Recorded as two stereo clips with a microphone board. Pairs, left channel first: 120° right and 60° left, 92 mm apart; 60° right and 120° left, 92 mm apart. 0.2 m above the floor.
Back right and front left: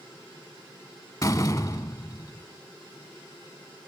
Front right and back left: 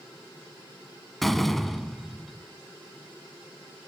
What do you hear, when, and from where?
1.2 s a door slam: 150° right, 0.9 m